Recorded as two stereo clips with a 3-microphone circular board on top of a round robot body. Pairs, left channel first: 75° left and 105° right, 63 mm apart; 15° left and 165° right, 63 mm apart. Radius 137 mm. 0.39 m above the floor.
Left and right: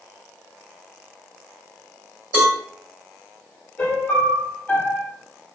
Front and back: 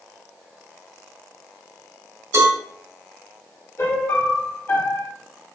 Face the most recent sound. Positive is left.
turn(degrees=20)